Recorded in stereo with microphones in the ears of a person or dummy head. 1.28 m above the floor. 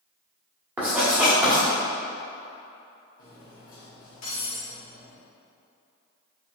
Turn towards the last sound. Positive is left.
turn(degrees=50)  # may be behind; listen again after turning